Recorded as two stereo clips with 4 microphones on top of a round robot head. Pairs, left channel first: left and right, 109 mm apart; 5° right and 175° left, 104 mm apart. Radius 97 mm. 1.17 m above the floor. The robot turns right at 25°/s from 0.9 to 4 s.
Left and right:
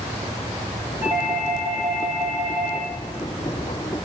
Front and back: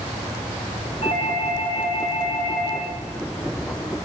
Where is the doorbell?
140° right, 4.5 m; by 2.9 s 90° right, 4.5 m.